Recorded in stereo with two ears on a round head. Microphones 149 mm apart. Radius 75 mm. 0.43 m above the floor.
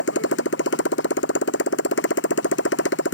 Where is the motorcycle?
80° left.